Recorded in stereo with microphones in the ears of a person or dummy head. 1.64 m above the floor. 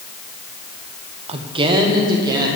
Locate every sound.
1.3 s a woman speaking: 30° right (ahead or behind), 0.8 m; by 2.5 s 20° right (ahead or behind), 2.0 m